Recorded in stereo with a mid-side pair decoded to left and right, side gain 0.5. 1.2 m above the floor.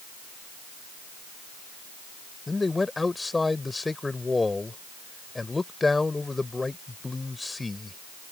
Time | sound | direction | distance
2.5 | a man speaking | 20° left | ?